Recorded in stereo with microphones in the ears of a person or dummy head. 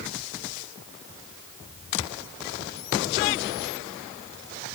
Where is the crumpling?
No crumpling in this recording.